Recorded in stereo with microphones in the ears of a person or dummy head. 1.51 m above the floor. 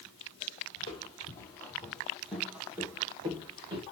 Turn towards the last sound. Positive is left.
turn(degrees=-30)  # may be behind; listen again after turning